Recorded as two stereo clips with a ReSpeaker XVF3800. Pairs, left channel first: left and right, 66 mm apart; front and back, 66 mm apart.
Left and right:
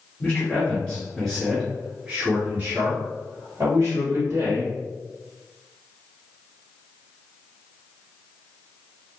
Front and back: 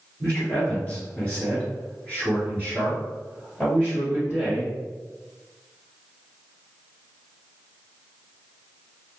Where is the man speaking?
50° left, 1.9 m; by 4.7 s 65° right, 2.5 m.